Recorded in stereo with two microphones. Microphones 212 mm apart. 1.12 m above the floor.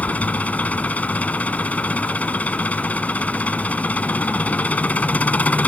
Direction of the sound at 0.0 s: 5° left (ahead or behind).